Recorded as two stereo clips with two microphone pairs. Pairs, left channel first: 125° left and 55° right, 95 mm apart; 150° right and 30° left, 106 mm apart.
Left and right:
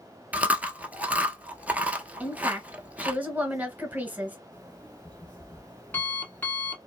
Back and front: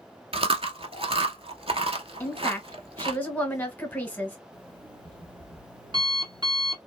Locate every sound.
0.3 s chewing: 20° left, 0.7 m
2.2 s a woman speaking: 105° right, 1.3 m
4.5 s an alarm clock: 55° left, 1.5 m